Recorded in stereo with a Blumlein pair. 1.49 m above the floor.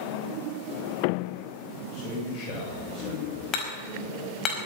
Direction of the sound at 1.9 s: 35° left.